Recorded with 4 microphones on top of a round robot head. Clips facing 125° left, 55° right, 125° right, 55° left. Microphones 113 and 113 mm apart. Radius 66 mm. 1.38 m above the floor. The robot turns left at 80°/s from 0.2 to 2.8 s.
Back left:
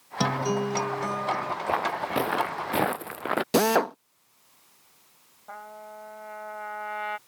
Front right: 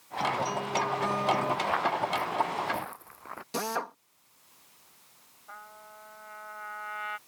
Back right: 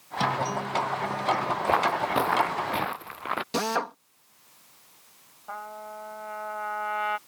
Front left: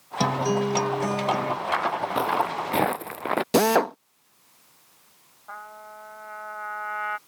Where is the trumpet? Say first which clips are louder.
Back left 7 dB, back right 3 dB; 170° left.